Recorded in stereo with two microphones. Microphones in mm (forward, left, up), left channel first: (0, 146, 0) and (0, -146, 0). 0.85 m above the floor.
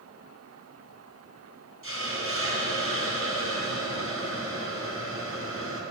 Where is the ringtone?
No ringtone in this recording.